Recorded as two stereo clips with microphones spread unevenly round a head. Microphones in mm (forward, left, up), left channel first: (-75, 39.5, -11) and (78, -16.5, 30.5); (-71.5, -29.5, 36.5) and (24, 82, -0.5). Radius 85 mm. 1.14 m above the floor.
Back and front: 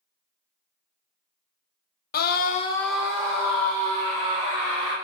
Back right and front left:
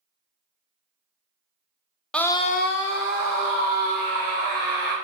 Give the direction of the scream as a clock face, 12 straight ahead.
7 o'clock.